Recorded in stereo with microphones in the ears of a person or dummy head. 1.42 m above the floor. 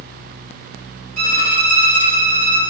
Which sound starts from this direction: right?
A violin, at 1.2 s.